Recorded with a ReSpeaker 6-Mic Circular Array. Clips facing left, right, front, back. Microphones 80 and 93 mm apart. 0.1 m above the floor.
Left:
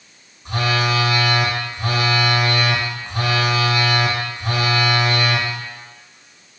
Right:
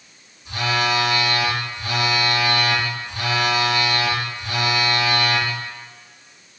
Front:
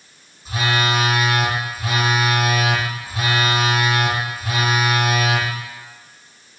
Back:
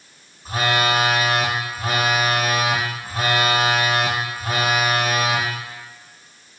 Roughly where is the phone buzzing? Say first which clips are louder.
Left 1 dB, back 1 dB; behind left.